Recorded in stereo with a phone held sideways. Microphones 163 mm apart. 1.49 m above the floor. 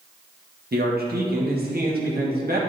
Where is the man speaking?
70° right (ahead or behind), 1.4 m.